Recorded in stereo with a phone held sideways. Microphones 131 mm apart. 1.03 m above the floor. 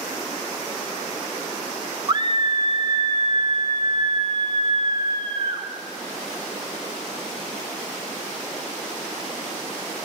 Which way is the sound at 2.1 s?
35° right (ahead or behind).